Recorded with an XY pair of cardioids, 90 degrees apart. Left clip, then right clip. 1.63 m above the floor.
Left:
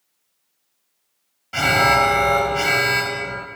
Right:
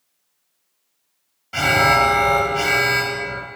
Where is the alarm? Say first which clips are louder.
Even; 5° left, 0.9 m.